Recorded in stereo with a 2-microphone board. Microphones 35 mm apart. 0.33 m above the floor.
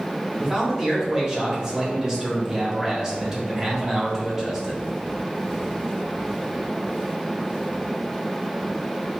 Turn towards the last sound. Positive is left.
turn(degrees=-20)  # may be behind; listen again after turning